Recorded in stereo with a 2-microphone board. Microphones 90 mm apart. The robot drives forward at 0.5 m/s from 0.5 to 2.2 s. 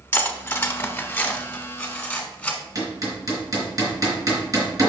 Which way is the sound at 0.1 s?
20° left (ahead or behind).